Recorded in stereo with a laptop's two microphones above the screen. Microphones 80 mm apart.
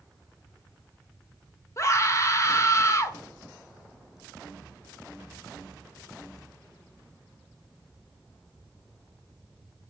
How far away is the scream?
About 1.5 m.